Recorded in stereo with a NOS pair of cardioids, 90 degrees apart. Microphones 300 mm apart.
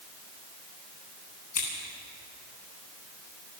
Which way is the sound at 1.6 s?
60° left.